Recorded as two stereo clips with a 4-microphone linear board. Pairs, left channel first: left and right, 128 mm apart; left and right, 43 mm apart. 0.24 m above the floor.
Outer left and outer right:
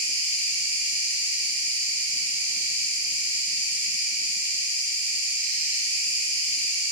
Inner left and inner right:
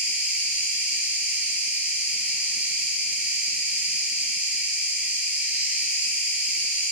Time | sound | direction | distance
0.0 | an insect | 20° right (ahead or behind) | 1.7 m